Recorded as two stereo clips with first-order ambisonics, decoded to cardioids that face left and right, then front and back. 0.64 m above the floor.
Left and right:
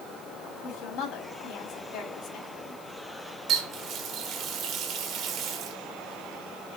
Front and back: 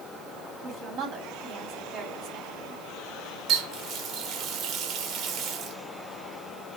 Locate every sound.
0.6 s a woman speaking: 130° left, 4 m
3.5 s a running tap: 135° right, 1.4 m